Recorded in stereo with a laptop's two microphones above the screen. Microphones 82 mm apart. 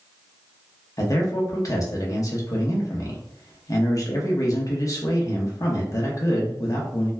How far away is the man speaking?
About 0.8 m.